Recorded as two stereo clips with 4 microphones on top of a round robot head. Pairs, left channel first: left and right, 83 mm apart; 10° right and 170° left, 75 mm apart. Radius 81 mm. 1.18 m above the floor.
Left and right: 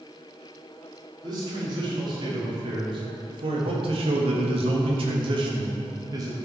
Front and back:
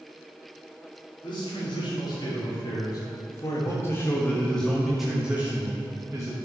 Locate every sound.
1.2 s a man speaking: 40° right, 2.5 m; by 6.4 s 140° right, 1.3 m